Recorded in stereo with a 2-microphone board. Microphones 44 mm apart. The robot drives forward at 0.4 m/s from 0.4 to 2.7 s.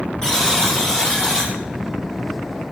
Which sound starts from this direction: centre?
A buzzer, at 0.2 s.